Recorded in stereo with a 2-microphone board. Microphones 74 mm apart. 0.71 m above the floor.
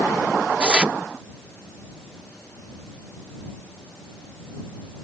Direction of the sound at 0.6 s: 15° right (ahead or behind).